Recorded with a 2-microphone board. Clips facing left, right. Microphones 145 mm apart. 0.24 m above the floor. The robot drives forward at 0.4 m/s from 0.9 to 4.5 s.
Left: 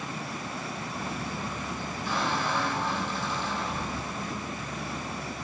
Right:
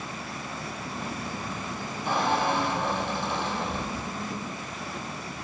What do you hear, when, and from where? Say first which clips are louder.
2.0 s a squeak: right 5 dB; 60° right (ahead or behind), 5 m; by 4.1 s 70° right (ahead or behind), 4.5 m